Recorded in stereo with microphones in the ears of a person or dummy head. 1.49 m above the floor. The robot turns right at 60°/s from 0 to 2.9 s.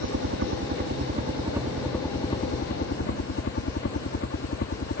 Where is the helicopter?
115° right; by 5.0 s 60° left.